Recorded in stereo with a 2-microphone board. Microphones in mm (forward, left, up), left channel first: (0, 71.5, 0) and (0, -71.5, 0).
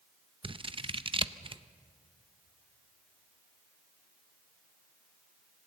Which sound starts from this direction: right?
Scissors, at 0.4 s.